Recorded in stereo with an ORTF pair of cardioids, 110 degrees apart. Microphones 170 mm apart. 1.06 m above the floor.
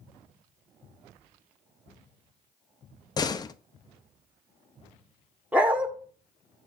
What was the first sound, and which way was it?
A door slam, 25° left.